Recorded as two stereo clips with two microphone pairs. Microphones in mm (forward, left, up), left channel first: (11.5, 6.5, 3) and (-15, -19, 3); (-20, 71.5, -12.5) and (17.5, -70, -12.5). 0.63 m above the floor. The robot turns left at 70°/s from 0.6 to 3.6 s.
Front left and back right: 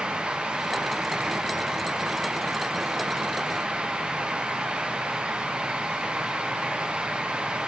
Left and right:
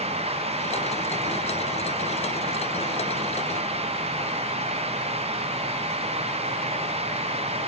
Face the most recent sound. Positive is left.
No sound to turn to.